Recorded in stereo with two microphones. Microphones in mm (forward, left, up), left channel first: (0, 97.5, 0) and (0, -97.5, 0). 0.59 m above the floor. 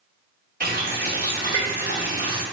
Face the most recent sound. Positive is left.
turn(degrees=-50)  # may be behind; listen again after turning